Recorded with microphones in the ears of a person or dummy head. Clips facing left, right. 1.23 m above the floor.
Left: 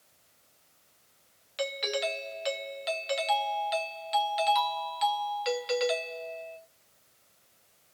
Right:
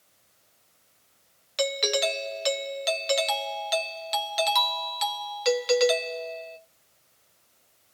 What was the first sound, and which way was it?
A doorbell, 60° right (ahead or behind).